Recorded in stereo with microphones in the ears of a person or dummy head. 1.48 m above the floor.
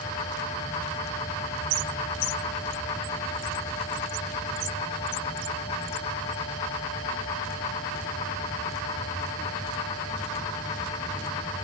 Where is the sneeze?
No sneeze in this recording.